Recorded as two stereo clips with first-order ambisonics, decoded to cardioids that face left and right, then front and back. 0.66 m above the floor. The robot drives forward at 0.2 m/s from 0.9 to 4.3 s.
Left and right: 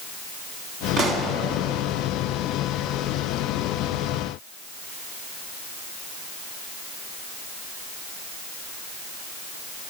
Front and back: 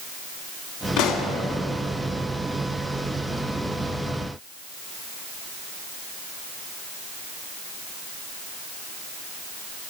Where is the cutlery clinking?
I don't hear cutlery clinking.